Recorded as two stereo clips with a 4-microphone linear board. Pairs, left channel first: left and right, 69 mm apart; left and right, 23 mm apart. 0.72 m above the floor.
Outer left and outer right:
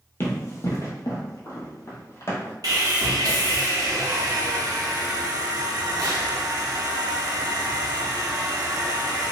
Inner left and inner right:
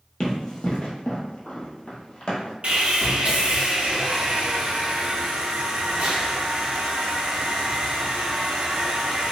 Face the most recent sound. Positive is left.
turn(degrees=-55)  # may be behind; listen again after turning